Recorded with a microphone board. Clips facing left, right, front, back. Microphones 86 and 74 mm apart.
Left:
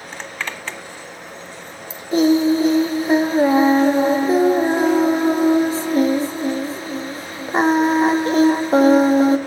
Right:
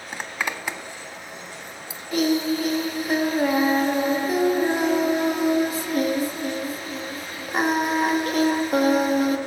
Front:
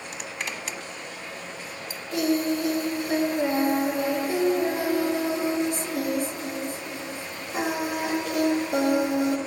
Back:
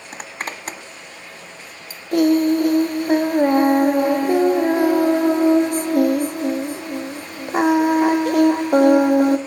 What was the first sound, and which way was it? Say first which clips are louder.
A zipper: right 1 dB, back 5 dB; 160° right.